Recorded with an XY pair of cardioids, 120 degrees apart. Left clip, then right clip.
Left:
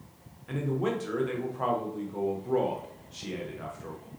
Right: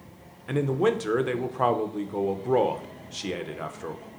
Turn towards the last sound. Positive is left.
turn(degrees=-50)